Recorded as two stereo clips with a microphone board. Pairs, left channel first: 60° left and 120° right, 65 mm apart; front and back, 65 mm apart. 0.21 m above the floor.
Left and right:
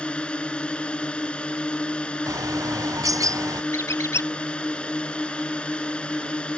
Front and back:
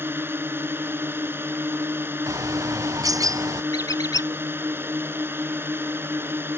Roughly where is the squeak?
Ahead.